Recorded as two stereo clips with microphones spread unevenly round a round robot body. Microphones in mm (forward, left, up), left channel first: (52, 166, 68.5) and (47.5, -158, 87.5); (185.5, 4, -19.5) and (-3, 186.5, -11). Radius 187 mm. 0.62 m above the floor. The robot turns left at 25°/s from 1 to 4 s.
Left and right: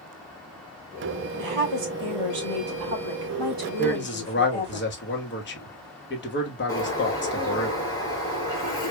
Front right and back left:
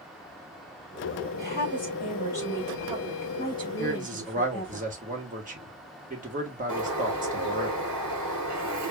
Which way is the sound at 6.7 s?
165° left.